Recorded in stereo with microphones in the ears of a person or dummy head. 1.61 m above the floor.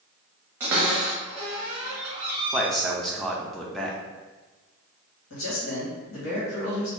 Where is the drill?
No drill in this recording.